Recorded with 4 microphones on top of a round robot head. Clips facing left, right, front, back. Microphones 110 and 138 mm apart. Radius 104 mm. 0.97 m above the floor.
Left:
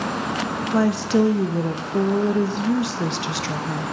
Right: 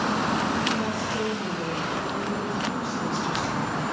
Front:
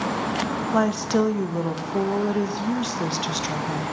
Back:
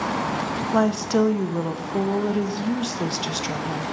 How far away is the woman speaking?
About 0.6 m.